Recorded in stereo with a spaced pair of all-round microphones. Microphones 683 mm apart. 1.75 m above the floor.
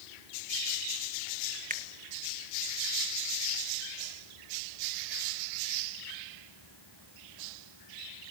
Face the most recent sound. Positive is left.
turn(degrees=-10)  # may be behind; listen again after turning